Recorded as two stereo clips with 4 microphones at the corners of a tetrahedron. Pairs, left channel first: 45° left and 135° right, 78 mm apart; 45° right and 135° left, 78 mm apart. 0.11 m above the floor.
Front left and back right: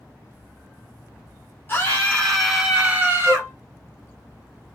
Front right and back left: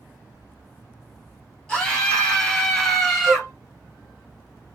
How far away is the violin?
About 1.9 m.